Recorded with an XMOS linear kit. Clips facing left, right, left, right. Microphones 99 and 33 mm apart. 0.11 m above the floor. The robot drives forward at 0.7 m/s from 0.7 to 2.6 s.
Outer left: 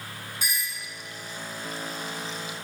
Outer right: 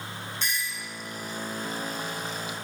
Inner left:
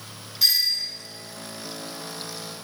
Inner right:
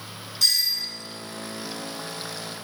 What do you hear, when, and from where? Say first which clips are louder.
0.4 s a doorbell: even, inner left 1 dB; 10° left (ahead or behind), 2 m